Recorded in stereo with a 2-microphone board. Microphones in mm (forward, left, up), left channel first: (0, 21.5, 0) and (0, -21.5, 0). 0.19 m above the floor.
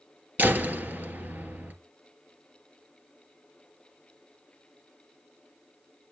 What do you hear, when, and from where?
0.4 s a door slam: 45° right (ahead or behind), 2.5 m